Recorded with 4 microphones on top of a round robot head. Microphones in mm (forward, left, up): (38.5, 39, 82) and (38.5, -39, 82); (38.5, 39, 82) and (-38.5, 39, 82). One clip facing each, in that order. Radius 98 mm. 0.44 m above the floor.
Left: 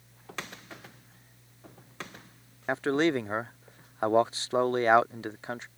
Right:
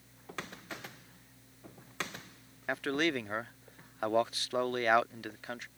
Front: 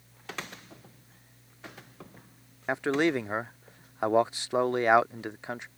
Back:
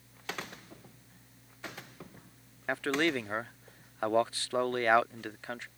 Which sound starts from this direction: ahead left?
A man speaking, at 2.7 s.